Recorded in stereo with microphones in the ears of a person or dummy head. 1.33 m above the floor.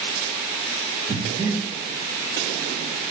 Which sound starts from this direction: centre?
Breathing, at 1.1 s.